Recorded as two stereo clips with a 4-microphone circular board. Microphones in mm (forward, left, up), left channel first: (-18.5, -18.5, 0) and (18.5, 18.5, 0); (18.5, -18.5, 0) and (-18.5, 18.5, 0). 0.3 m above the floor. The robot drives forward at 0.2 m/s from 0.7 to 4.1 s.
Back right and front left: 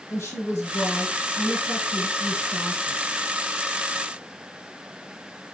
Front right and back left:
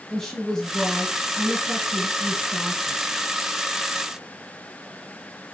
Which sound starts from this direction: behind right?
A woman speaking, at 0.1 s.